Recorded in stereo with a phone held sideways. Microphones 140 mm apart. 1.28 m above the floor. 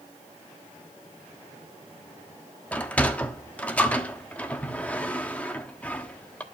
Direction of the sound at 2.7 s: 10° left (ahead or behind).